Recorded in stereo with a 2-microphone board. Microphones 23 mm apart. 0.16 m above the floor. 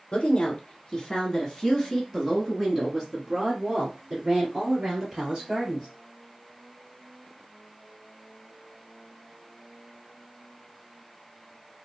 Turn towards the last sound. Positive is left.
turn(degrees=-45)  # may be behind; listen again after turning